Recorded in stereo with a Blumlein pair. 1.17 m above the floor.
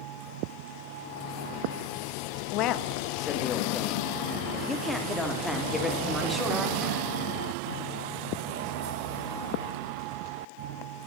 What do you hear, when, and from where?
2.5 s a man speaking: 40° left, 1.4 m; by 7.0 s straight ahead, 4 m